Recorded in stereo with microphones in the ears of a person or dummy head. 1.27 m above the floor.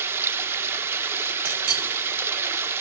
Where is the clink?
85° right, 7.5 m.